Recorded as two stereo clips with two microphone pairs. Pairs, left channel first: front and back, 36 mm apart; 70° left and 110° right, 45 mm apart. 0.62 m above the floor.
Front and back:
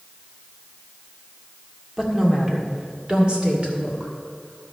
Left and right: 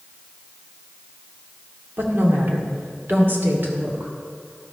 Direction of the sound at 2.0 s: 110° right.